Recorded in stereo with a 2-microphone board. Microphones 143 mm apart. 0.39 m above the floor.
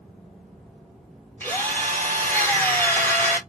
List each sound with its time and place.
1.4 s a drill: 15° left (ahead or behind), 1.9 m